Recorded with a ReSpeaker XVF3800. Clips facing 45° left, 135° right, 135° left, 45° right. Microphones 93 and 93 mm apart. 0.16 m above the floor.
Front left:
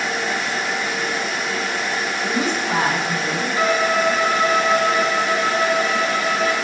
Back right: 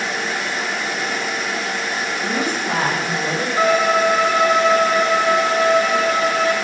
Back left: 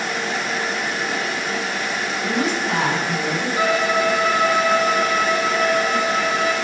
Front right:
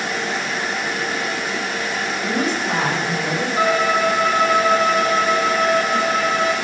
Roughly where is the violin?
Right.